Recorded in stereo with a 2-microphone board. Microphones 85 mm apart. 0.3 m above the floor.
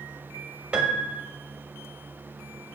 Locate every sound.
0.7 s a piano: 15° right (ahead or behind), 0.8 m